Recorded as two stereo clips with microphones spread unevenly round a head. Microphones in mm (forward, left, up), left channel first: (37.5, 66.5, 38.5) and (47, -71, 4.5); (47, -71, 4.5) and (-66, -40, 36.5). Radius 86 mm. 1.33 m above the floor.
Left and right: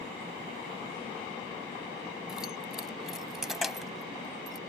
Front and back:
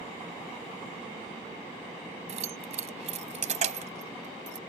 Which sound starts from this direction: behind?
Keys jangling, at 2.3 s.